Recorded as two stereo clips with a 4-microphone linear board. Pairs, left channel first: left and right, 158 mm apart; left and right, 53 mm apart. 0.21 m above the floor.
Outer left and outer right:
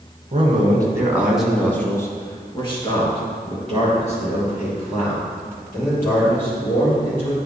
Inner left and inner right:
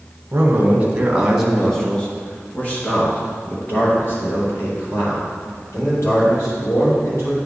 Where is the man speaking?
40° right (ahead or behind), 1.6 m; by 7.3 s 50° left (ahead or behind), 6.5 m.